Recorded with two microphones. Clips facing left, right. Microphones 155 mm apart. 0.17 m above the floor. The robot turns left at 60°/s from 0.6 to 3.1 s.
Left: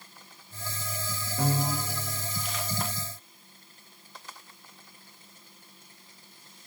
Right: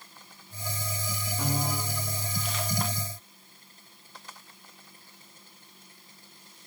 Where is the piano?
120° left, 5 m; by 2.0 s 85° left, 5 m.